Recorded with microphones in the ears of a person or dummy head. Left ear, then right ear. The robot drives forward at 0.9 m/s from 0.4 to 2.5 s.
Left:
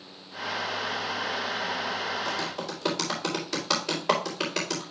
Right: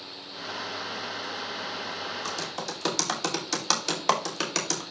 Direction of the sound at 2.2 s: 70° right (ahead or behind).